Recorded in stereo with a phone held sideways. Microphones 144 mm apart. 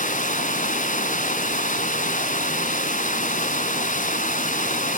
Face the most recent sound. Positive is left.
turn(degrees=65)  # may be behind; listen again after turning